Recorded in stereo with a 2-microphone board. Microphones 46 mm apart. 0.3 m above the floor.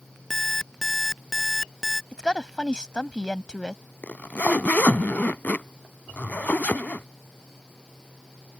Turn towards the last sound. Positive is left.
turn(degrees=35)  # may be behind; listen again after turning